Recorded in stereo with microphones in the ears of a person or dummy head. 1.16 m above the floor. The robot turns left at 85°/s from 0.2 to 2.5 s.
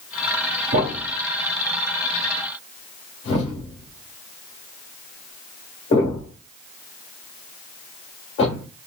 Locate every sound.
0.7 s a thud: 50° right (ahead or behind), 1.3 m; by 8.7 s 30° left (ahead or behind), 1.3 m